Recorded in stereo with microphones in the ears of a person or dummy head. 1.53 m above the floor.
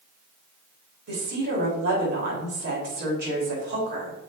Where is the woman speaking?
65° right (ahead or behind), 3.5 m.